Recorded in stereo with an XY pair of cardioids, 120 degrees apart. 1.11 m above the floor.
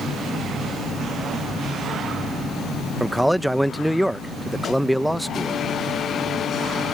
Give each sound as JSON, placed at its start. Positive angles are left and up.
{"t": 3.0, "sound": "a man speaking", "azimuth_deg": -5}